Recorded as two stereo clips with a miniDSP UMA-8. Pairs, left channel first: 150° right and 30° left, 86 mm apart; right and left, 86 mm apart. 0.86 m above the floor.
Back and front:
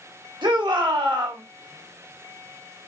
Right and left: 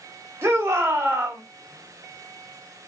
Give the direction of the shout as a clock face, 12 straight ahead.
11 o'clock.